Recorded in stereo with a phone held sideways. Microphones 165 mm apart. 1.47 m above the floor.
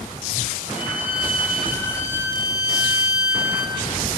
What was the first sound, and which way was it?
A violin, 10° right (ahead or behind).